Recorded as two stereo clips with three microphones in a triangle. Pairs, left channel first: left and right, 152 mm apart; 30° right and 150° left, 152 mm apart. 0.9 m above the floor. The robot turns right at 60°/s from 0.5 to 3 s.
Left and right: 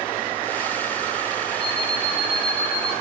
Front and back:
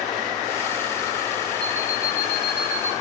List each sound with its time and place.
1.6 s an alarm clock: 75° right, 5 m; by 2.9 s straight ahead, 5 m